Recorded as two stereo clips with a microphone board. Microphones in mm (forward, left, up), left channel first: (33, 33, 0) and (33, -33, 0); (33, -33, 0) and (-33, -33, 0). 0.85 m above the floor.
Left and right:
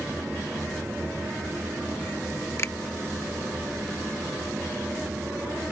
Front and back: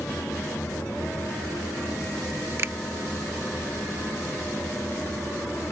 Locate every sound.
2.6 s a finger snap: 135° left